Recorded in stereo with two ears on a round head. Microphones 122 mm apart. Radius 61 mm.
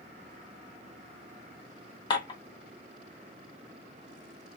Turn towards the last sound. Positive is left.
turn(degrees=35)  # may be behind; listen again after turning